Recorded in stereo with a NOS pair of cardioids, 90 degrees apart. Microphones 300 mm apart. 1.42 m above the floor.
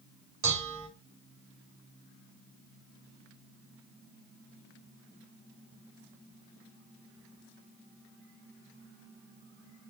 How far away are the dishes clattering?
About 3 m.